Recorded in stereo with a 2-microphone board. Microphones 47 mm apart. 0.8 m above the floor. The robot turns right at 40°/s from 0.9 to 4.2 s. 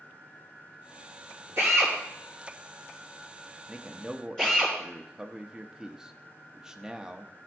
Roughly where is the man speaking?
Right.